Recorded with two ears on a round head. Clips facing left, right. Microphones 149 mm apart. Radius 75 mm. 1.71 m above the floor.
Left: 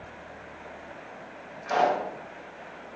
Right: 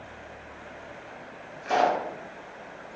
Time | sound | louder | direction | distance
1.6 | a pop | right 1 dB | 25° right (ahead or behind) | 0.5 m